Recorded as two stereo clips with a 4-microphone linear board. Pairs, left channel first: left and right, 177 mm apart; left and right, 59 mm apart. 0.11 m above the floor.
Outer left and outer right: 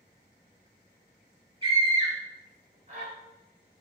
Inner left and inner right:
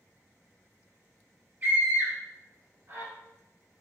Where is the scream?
30° right (ahead or behind), 1.5 m; by 3.1 s 45° right (ahead or behind), 2 m.